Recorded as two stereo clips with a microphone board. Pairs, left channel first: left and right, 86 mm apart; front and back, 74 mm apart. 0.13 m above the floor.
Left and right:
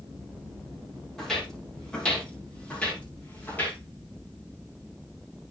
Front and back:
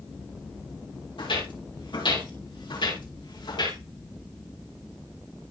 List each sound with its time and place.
1.2 s footsteps: 5° left, 6 m; by 3.8 s 20° left, 6 m